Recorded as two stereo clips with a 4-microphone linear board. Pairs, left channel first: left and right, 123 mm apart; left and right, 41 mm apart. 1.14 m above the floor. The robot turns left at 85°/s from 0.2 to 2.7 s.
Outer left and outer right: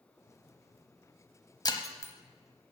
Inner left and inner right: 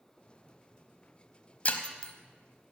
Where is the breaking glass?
35° left (ahead or behind), 1.1 m; by 2.1 s 20° left (ahead or behind), 1.1 m.